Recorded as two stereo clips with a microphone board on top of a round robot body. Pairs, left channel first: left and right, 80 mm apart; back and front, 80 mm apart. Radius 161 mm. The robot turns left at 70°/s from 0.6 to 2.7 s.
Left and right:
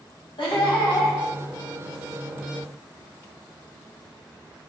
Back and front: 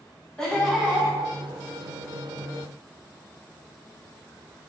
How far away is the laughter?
About 1.5 m.